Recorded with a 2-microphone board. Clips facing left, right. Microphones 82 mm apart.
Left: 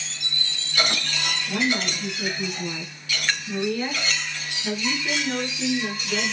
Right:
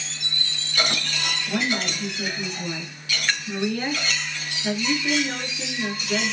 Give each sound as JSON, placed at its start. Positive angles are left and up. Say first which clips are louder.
{"t": 1.5, "sound": "a woman speaking", "louder": "left 1 dB", "side_deg": -30, "distance_m": 6.0}